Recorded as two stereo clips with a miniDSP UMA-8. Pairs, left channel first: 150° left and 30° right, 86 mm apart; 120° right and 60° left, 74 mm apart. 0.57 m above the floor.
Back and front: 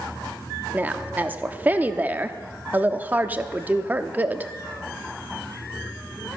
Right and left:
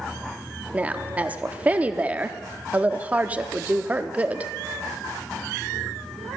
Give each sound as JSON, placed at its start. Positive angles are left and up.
{"t": 0.7, "sound": "a woman speaking", "azimuth_deg": 15, "distance_m": 0.7}